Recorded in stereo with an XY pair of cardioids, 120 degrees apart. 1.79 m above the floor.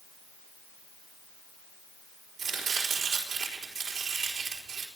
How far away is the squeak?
No squeak in this recording.